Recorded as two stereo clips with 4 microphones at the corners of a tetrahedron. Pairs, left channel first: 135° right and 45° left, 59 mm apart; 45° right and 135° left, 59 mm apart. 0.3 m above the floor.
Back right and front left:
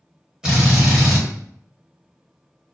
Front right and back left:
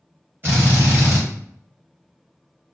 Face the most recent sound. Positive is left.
turn(degrees=115)